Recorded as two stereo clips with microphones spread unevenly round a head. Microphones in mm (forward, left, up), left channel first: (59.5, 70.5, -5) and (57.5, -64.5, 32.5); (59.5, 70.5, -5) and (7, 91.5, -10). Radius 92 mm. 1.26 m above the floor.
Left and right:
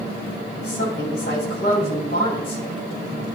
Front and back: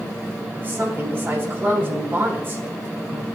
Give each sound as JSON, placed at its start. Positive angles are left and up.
{"t": 0.6, "sound": "a woman speaking", "azimuth_deg": 110, "distance_m": 6.5}